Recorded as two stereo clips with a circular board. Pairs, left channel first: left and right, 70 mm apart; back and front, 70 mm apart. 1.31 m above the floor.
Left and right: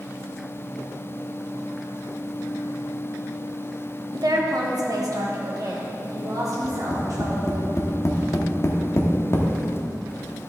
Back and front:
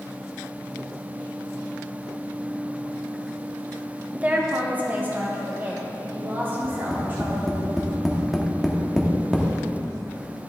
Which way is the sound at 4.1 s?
70° right.